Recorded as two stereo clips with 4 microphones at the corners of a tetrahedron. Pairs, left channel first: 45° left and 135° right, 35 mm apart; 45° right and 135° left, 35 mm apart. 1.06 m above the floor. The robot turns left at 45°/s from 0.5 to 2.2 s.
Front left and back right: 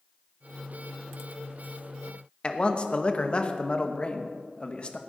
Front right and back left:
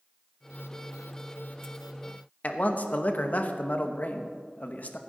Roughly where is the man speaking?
Ahead.